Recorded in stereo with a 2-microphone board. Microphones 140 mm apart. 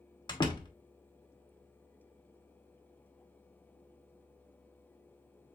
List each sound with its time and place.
0.3 s a door slam: 30° left (ahead or behind), 1.2 m